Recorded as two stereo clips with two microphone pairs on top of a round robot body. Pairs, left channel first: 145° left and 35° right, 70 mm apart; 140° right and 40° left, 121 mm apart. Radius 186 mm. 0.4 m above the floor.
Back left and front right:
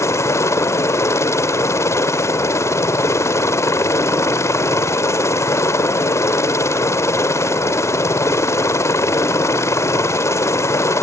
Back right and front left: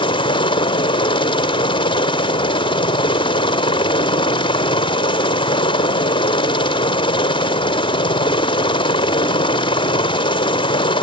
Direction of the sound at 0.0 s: 175° right.